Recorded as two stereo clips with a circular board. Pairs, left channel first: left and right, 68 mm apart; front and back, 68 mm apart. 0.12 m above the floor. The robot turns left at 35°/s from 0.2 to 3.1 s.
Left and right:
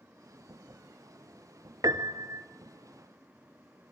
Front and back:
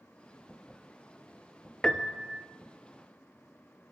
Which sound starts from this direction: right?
A piano, at 1.8 s.